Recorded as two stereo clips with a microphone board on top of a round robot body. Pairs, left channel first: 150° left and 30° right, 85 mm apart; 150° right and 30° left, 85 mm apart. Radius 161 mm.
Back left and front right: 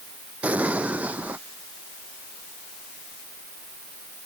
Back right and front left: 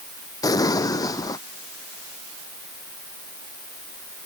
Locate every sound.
0.4 s an explosion: 105° right